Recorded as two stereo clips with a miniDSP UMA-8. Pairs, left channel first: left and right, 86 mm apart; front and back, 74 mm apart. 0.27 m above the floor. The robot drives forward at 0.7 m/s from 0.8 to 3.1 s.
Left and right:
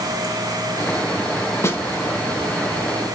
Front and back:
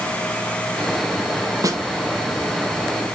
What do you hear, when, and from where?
1.6 s a snare drum: 145° left, 0.6 m; by 1.8 s 155° left, 0.7 m